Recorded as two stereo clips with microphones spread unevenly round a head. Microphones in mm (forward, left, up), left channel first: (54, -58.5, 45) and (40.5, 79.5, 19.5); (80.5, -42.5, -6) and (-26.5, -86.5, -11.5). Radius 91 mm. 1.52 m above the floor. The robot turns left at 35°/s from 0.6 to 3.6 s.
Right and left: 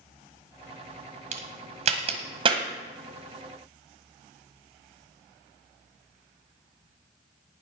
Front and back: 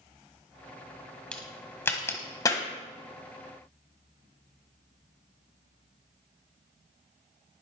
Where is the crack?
95° left, 1.6 m; by 2.6 s 50° left, 1.6 m.